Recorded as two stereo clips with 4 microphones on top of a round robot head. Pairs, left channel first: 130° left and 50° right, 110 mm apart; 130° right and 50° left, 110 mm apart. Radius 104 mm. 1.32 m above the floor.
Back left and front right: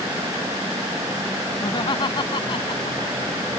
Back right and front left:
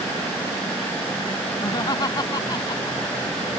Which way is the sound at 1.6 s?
Straight behind.